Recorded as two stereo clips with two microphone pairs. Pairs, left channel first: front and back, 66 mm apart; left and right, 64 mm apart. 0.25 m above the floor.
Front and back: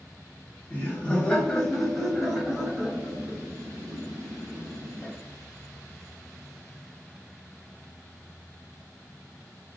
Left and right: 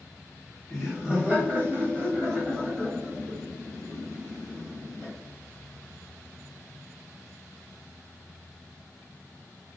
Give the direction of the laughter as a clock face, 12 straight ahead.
12 o'clock.